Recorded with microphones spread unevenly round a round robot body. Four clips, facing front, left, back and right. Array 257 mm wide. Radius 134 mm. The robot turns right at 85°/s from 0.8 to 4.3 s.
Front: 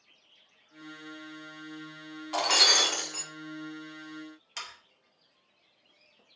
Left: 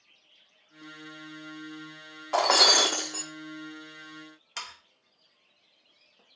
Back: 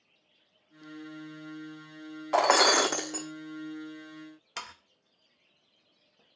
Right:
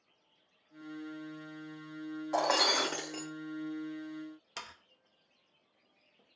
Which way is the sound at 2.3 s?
125° left.